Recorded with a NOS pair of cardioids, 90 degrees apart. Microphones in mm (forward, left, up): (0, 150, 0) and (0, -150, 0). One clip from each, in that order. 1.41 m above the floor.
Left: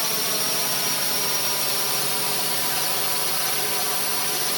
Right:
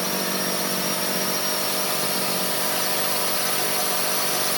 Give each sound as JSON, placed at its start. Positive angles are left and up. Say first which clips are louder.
{"t": 0.0, "sound": "a drone", "louder": "even", "azimuth_deg": 40}